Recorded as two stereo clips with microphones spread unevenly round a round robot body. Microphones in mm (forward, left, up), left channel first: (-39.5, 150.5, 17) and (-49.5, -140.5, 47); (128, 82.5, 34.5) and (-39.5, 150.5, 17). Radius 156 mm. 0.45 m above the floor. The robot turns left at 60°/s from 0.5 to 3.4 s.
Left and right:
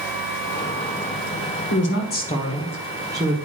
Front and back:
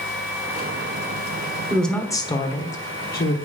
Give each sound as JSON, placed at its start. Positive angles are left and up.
{"t": 1.7, "sound": "a woman speaking", "azimuth_deg": 75, "distance_m": 1.5}